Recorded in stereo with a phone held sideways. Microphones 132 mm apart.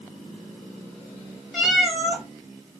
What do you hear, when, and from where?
1.5 s a cat meowing: centre (ahead or behind), 1.1 m